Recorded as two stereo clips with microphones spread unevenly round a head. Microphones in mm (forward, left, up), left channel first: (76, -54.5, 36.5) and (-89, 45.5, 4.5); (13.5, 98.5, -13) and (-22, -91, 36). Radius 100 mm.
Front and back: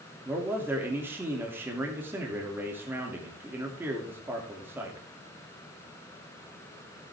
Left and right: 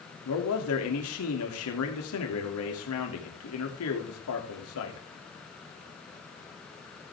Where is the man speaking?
65° left, 3 m.